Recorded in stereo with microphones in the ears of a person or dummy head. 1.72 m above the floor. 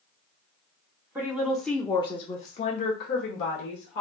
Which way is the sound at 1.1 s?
10° right (ahead or behind).